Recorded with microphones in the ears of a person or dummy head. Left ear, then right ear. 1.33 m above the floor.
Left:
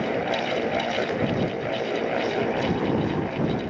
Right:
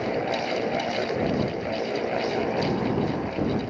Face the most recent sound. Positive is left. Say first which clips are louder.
# left 1 dB
turn(degrees=5)  # may be behind; listen again after turning